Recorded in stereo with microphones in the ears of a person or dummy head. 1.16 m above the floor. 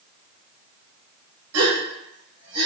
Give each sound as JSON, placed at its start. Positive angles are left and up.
{"t": 1.5, "sound": "a gasp", "side_deg": -80, "distance_m": 1.5}